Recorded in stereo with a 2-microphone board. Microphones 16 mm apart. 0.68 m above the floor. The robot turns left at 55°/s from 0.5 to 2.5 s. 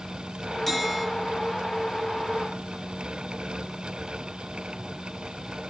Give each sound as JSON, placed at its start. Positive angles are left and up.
{"t": 0.7, "sound": "a bell", "side_deg": 10, "distance_m": 7.0}